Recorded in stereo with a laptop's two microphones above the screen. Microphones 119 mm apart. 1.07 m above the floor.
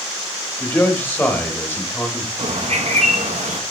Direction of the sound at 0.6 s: 20° left (ahead or behind).